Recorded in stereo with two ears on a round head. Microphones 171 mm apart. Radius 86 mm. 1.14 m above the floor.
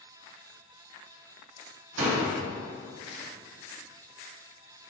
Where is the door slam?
75° right (ahead or behind), 1.8 m.